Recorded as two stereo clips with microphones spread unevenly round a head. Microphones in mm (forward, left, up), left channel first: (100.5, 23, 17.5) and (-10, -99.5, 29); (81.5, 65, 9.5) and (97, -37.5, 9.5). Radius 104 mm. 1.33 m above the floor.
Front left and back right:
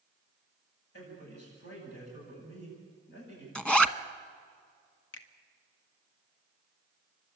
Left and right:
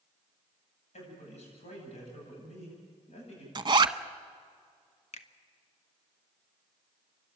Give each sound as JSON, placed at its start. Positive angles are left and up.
{"t": 0.9, "sound": "a man speaking", "azimuth_deg": 90, "distance_m": 10.0}
{"t": 3.5, "sound": "a zipper", "azimuth_deg": -35, "distance_m": 0.9}
{"t": 5.1, "sound": "a finger snap", "azimuth_deg": 85, "distance_m": 1.2}